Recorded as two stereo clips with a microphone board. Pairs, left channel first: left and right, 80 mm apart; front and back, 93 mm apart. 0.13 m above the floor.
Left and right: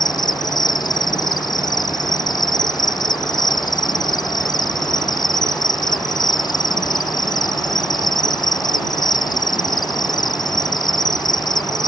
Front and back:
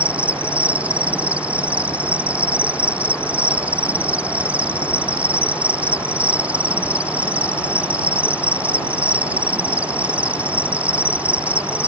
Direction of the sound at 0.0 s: 105° left.